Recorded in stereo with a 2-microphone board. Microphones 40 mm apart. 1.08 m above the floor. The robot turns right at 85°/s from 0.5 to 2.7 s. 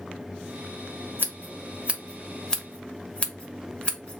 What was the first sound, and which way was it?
Scissors, 55° right (ahead or behind).